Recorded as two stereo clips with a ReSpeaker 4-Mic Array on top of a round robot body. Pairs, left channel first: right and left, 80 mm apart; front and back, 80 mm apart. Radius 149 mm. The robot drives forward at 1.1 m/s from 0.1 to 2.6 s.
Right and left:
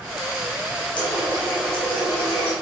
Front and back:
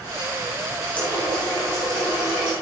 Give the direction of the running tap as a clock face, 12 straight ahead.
2 o'clock.